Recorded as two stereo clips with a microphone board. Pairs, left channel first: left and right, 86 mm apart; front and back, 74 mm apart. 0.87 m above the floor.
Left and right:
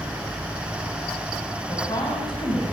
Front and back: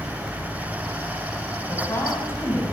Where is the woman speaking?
50° left, 6.5 m.